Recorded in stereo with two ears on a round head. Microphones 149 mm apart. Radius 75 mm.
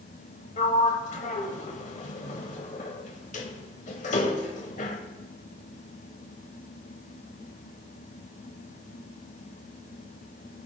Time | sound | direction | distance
0.6 | a sliding door | 50° left (ahead or behind) | 1.1 m